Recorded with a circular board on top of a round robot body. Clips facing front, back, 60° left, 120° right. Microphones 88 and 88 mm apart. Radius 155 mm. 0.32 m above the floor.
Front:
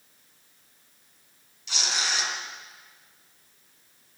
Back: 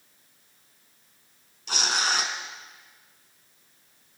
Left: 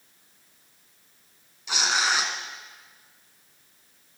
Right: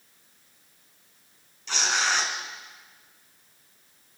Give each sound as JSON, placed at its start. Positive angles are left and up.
{"t": 1.7, "sound": "tearing paper", "azimuth_deg": 140, "distance_m": 3.5}